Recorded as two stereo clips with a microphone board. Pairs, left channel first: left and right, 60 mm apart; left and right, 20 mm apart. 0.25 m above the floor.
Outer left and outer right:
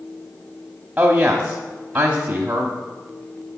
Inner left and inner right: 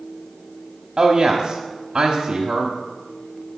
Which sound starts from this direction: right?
A woman speaking, at 1.0 s.